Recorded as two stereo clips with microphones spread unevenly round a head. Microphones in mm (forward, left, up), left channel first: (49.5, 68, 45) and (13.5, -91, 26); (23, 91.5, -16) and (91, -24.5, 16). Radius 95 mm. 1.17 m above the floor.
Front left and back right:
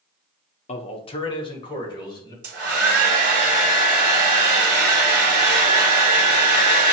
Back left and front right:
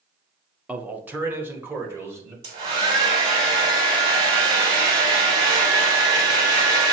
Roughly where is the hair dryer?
Right.